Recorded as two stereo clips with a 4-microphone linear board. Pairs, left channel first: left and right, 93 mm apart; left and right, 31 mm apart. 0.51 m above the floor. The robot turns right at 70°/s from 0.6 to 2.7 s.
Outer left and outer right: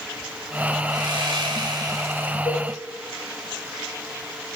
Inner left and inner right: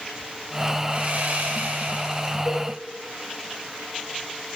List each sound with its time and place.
0.9 s sawing: 120° right, 2.5 m; by 2.4 s 20° right, 2.5 m
2.5 s a cowbell: 45° left (ahead or behind), 1.7 m; by 2.6 s 30° left (ahead or behind), 1.7 m